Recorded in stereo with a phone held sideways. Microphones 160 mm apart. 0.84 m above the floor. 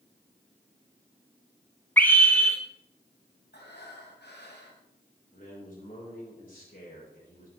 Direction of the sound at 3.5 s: 85° left.